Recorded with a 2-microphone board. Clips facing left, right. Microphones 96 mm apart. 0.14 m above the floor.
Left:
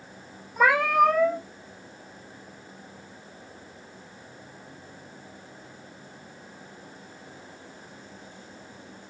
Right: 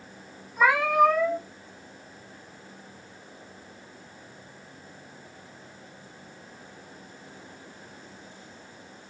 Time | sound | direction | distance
0.6 | a cat meowing | 55° left (ahead or behind) | 0.9 m